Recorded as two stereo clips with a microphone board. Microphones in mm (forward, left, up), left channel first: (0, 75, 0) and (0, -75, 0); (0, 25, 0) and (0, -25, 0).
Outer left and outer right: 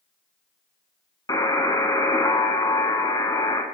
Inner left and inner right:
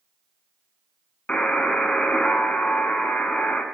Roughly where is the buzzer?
Left.